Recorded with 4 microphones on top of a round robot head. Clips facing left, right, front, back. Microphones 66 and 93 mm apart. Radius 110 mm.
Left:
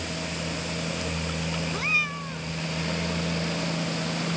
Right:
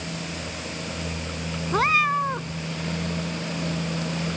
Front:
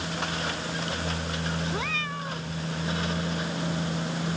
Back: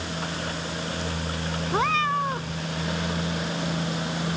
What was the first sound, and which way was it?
A cat meowing, 120° right.